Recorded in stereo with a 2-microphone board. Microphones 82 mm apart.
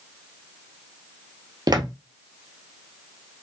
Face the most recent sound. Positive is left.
turn(degrees=-55)  # may be behind; listen again after turning